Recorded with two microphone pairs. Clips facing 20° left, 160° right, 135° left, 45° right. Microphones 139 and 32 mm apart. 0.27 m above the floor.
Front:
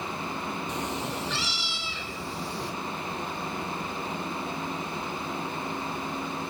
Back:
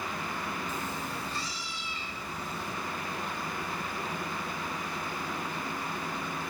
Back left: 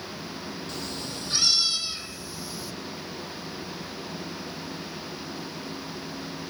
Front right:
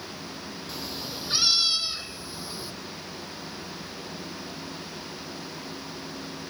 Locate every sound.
0.7 s a cat meowing: 35° left, 2.5 m; by 2.7 s 15° left, 3.5 m